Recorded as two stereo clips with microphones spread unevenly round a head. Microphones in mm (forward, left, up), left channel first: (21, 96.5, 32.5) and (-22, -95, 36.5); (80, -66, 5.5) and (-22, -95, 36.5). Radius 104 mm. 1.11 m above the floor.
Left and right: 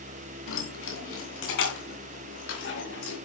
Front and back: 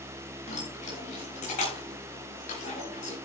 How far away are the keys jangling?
About 7 m.